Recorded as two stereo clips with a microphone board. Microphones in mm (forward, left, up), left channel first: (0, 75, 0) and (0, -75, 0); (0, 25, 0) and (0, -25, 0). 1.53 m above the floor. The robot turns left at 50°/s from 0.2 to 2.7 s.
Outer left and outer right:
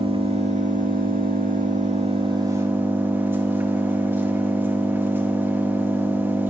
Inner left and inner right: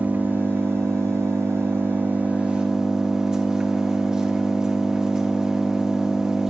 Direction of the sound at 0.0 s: 40° right.